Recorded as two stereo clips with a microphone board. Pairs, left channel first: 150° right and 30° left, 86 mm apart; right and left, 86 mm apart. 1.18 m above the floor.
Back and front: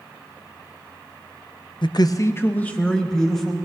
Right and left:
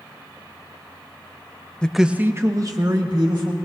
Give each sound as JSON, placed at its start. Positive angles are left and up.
{"t": 1.8, "sound": "a man speaking", "azimuth_deg": -165, "distance_m": 0.6}